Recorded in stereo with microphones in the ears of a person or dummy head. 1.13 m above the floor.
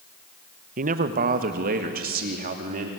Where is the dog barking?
No dog barking in this recording.